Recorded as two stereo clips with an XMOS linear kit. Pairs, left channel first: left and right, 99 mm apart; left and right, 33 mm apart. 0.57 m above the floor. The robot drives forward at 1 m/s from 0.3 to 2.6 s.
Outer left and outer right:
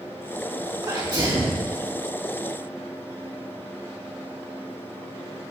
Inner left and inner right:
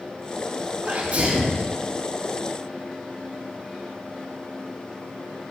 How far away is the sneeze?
About 2 m.